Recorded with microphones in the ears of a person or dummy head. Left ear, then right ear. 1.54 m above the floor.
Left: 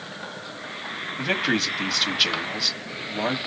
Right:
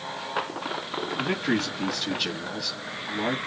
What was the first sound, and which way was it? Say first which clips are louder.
A man speaking: left 5 dB; 30° left (ahead or behind).